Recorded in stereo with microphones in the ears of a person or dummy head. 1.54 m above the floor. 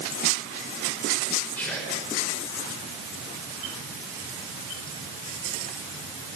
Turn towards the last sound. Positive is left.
turn(degrees=10)  # may be behind; listen again after turning